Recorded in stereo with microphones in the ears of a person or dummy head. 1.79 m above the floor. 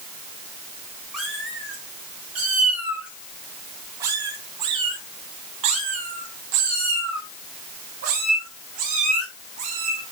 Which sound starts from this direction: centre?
A cat meowing, at 1.1 s.